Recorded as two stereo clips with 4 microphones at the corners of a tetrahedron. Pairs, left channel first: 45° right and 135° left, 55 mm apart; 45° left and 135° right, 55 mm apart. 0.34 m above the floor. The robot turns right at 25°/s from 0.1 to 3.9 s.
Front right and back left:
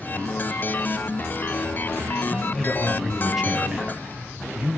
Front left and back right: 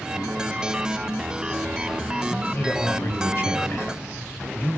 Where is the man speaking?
25° left, 1.9 m; by 4.8 s 65° left, 1.9 m.